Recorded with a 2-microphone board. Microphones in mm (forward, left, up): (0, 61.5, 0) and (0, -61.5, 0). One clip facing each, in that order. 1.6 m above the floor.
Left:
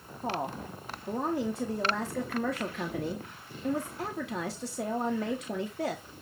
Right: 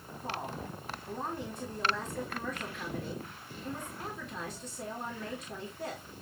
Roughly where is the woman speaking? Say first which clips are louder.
Left 6 dB; left.